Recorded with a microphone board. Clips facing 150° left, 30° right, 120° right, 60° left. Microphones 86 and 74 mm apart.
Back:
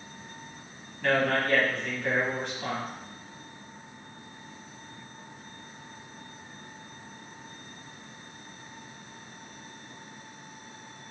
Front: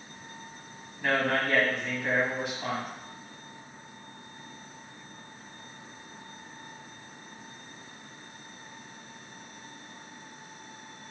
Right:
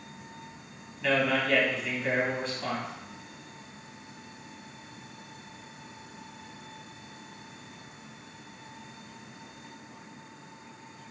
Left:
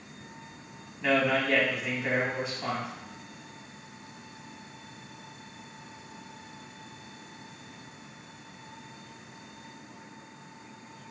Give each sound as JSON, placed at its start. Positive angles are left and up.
{"t": 1.0, "sound": "a man speaking", "azimuth_deg": 25, "distance_m": 1.1}